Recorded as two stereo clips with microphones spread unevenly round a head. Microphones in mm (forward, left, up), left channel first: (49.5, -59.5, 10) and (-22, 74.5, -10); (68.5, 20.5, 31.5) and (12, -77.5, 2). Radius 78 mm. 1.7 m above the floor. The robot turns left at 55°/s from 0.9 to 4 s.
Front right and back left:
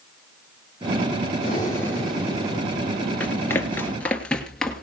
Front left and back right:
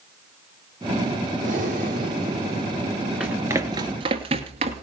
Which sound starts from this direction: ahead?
Running footsteps, at 3.2 s.